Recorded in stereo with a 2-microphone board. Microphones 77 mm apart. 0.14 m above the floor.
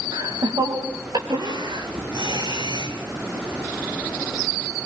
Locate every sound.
0.1 s laughter: 80° right, 6.5 m; by 2.9 s 65° right (ahead or behind), 7 m